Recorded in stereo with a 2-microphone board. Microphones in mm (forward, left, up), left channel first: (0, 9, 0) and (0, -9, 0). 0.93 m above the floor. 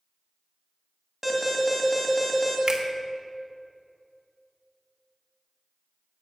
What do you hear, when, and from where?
1.2 s an alarm: 10° right (ahead or behind), 2.5 m
2.7 s a finger snap: 45° right (ahead or behind), 1.2 m